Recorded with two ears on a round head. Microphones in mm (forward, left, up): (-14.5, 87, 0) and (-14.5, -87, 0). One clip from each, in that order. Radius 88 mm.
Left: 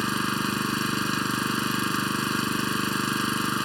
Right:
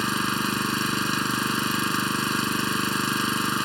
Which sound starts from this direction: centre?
An engine running, at 0.0 s.